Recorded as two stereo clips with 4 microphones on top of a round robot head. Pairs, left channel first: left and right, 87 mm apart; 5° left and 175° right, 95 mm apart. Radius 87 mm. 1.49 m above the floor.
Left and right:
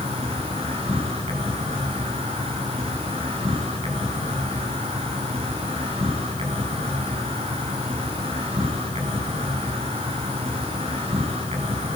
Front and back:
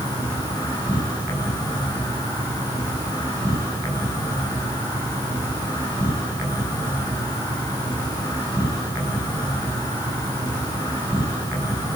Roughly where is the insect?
Right.